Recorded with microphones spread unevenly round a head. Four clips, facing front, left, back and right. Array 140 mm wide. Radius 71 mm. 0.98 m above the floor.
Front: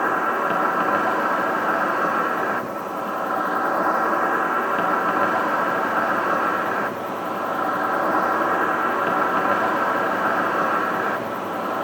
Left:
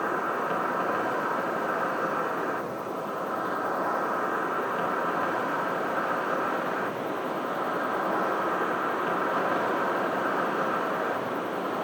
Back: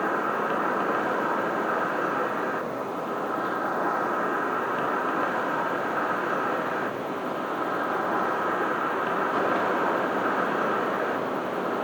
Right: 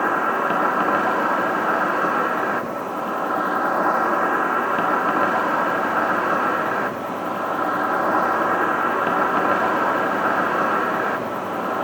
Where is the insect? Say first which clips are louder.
Right 8 dB, front 5 dB; 55° right, 1.7 m.